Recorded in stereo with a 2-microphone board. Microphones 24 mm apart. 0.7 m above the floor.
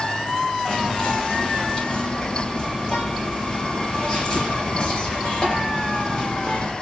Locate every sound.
0.7 s whispering: 35° left (ahead or behind), 0.7 m